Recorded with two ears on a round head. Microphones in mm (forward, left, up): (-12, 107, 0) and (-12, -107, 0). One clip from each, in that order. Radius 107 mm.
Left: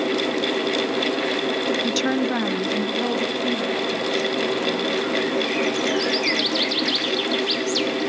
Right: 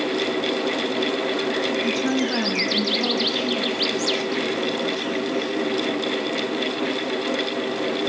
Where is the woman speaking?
50° left (ahead or behind), 0.6 m; by 5.5 s centre (ahead or behind), 4.5 m.